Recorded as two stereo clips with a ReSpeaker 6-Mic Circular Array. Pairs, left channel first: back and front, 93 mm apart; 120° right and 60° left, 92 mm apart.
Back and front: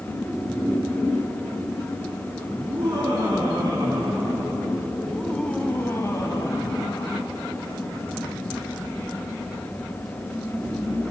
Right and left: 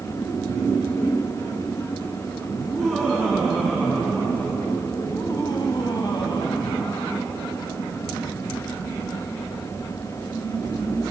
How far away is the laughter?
About 5 m.